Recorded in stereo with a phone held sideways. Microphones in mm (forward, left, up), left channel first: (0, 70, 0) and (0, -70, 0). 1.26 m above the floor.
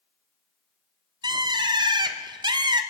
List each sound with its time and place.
1.2 s a bird: 30° right (ahead or behind), 0.8 m